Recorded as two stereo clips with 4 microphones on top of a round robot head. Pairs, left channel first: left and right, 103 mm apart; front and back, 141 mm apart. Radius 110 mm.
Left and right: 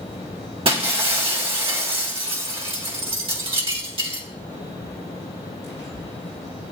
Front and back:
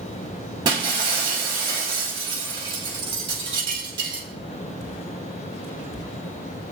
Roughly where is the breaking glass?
Behind right.